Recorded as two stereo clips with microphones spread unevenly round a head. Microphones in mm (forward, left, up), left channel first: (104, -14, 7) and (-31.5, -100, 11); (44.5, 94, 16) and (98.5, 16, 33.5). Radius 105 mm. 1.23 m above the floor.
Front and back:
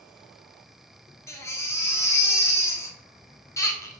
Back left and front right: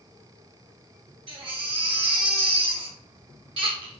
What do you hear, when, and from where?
1.3 s a baby crying: 40° right, 0.8 m